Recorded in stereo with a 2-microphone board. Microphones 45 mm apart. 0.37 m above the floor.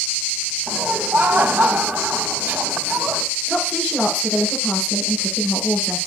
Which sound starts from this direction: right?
Laughter, at 0.7 s.